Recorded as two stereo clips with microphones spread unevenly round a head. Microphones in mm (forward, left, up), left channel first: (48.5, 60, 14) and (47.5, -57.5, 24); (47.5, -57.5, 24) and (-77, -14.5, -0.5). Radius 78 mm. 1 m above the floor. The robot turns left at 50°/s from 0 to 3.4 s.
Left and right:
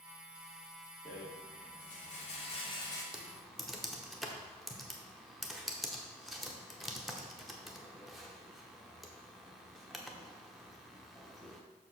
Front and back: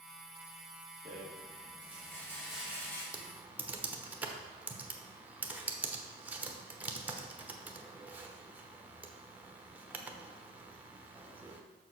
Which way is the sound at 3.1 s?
175° right.